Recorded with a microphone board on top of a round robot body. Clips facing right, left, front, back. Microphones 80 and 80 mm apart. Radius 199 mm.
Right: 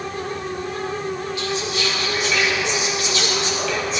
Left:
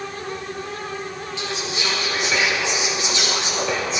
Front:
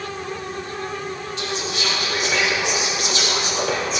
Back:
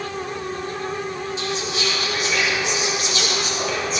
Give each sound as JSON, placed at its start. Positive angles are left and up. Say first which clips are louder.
{"t": 1.4, "sound": "whispering", "louder": "right 3 dB, front 1 dB", "azimuth_deg": 25, "distance_m": 2.0}